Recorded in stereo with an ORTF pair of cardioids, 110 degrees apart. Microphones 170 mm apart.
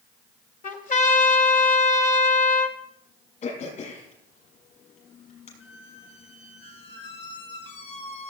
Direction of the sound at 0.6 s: 55° left.